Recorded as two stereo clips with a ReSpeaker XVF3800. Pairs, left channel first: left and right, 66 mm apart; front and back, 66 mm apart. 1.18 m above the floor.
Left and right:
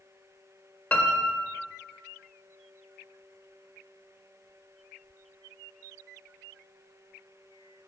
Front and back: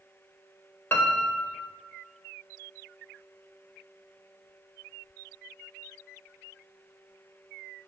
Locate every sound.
0.9 s a piano: 35° left, 1.1 m